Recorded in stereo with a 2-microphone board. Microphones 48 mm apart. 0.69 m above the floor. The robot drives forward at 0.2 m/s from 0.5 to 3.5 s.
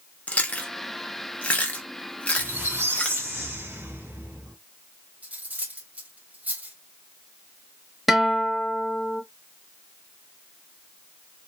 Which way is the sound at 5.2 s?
35° right (ahead or behind).